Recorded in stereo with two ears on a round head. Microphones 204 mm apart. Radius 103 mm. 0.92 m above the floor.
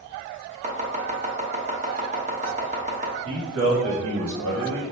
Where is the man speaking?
75° right (ahead or behind), 1.5 m.